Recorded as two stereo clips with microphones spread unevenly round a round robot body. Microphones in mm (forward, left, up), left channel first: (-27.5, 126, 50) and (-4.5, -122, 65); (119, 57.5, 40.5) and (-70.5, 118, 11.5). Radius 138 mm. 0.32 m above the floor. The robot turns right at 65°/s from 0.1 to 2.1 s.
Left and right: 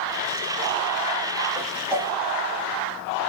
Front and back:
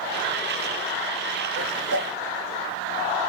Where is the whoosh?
170° left, 1.5 m; by 2.1 s 155° right, 1.5 m.